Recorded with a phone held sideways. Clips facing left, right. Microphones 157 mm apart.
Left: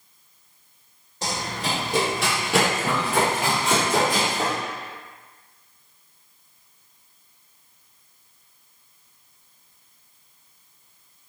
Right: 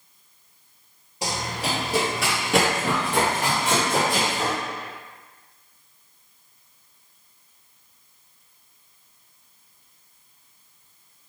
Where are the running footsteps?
10° right (ahead or behind), 1.5 m; by 4.5 s 20° left (ahead or behind), 1.9 m.